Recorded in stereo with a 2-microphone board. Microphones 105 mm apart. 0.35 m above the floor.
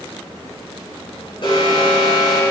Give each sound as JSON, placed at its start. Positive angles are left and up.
{"t": 1.4, "sound": "an alarm", "side_deg": 55, "distance_m": 5.0}